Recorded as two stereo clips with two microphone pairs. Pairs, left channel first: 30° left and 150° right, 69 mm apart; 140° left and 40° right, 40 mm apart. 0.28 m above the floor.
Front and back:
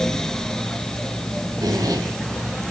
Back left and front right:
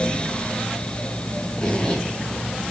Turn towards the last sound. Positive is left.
turn(degrees=-155)